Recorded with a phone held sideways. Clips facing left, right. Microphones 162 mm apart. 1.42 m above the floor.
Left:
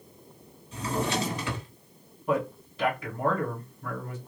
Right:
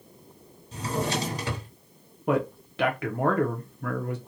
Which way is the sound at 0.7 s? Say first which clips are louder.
Even; 40° right (ahead or behind).